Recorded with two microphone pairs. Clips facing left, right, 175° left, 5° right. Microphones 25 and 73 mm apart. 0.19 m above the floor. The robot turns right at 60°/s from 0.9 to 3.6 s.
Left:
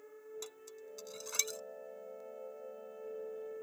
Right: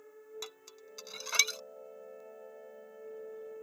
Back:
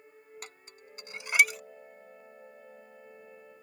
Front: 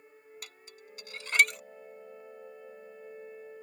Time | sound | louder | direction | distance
0.4 | dishes clattering | right 1 dB, back 1 dB | 130° right | ?